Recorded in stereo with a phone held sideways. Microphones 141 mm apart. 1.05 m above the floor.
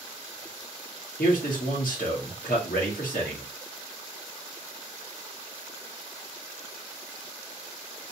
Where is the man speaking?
80° left, 1.8 m.